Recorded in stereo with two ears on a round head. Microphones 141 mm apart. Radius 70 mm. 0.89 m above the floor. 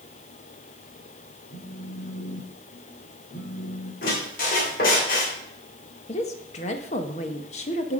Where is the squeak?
60° left (ahead or behind), 3 m.